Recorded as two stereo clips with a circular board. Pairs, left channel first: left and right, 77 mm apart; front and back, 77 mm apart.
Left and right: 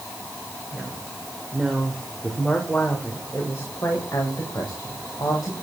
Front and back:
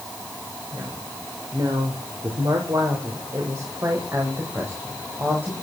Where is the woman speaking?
155° right, 3 m; by 5.5 s 115° left, 4.5 m.